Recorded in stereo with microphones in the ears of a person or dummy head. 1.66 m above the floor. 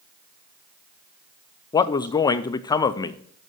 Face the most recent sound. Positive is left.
turn(degrees=15)  # may be behind; listen again after turning